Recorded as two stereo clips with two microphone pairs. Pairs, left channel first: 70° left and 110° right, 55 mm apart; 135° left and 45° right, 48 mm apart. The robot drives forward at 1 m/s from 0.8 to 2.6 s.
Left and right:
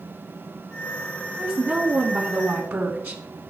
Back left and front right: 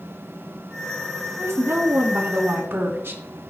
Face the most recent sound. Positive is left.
turn(degrees=-75)